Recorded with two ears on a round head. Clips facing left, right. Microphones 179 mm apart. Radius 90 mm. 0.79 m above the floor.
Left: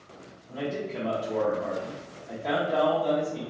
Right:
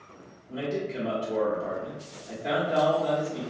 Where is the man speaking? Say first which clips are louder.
Right 1 dB; 5° right (ahead or behind), 0.9 m.